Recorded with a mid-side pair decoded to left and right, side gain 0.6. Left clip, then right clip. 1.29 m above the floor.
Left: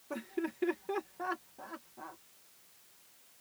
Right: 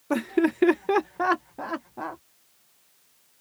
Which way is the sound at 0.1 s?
60° right.